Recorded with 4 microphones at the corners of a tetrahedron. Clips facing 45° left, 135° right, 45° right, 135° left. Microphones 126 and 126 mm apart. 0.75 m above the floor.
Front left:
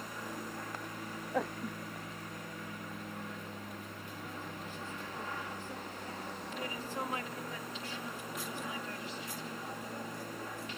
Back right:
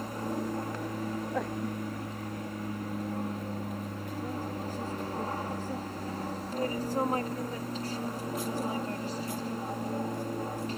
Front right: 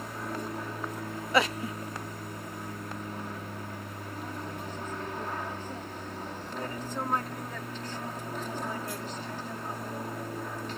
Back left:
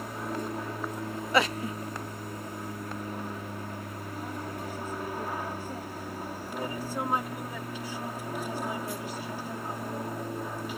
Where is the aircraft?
150° right.